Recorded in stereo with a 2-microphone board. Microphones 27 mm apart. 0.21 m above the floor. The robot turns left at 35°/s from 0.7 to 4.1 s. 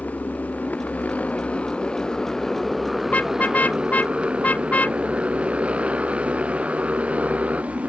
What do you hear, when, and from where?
0.0 s a motorcycle: 85° left; by 7.9 s 55° right (ahead or behind)
3.1 s a car horn: 65° left (ahead or behind); by 7.9 s 75° left (ahead or behind)